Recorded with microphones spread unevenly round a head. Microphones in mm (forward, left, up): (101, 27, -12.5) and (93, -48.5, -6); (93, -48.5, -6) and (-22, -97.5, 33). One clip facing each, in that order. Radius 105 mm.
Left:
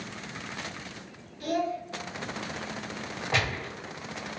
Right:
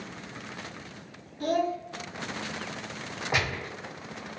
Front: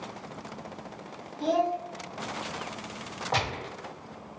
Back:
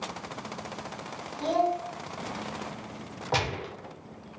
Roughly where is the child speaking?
Ahead right.